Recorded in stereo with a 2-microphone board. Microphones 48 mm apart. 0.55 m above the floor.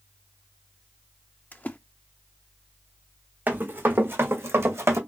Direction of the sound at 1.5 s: 35° left (ahead or behind).